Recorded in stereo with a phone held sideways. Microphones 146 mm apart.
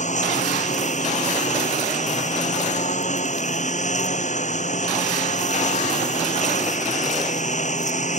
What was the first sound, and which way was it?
A lawn mower, 55° left (ahead or behind).